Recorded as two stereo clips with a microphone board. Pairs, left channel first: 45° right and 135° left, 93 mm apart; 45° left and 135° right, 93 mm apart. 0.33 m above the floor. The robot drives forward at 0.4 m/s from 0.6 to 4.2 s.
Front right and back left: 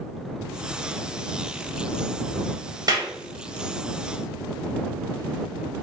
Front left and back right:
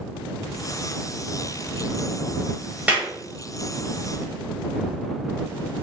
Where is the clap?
155° left, 1.7 m; by 3.1 s 160° left, 1.7 m.